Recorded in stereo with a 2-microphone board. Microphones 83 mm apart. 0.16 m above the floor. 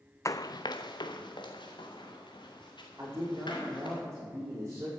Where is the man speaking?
30° right (ahead or behind), 7 m.